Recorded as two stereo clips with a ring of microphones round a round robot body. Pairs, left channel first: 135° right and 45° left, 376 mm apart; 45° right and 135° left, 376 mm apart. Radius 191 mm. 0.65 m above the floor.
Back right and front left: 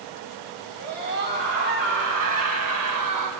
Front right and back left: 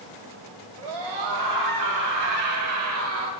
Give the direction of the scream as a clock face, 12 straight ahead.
8 o'clock.